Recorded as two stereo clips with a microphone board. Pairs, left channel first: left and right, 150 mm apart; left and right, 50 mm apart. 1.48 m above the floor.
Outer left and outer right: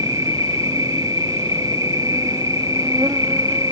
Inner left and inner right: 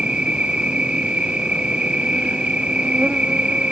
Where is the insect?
20° right (ahead or behind).